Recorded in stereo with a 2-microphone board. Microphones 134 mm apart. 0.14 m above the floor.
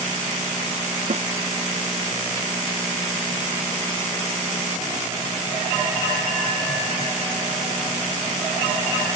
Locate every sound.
1.1 s a snare drum: 55° right (ahead or behind)